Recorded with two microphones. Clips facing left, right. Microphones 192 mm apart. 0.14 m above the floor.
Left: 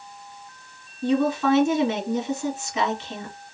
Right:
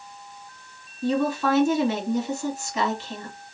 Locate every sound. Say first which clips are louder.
1.0 s a woman speaking: left 2 dB; centre (ahead or behind), 1.6 m